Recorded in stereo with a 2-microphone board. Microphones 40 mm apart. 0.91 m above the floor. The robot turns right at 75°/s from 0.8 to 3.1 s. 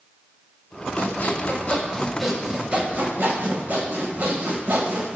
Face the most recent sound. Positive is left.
turn(degrees=-115)